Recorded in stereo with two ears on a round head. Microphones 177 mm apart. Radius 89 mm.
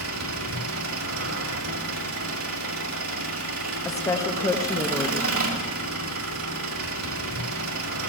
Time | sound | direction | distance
0.0 | an engine running | 80° right | 1.8 m
3.9 | a woman speaking | 15° left (ahead or behind) | 0.8 m